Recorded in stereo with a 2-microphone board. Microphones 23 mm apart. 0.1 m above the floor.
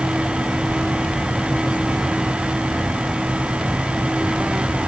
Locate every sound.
Only background noise.